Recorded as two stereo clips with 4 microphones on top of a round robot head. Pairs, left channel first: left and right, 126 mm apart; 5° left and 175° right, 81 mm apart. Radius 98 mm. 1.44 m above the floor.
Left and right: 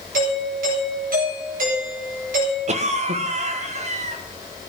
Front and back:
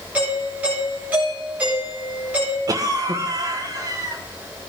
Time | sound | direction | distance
0.1 | a doorbell | 100° right | 9 m
2.7 | a cough | 125° right | 1.7 m